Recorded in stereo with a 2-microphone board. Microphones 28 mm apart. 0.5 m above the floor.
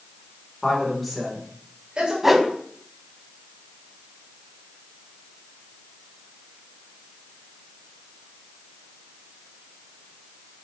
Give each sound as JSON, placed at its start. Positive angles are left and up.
{"t": 0.6, "sound": "a woman speaking", "side_deg": 25, "distance_m": 1.5}
{"t": 2.2, "sound": "a whoosh", "side_deg": -10, "distance_m": 0.5}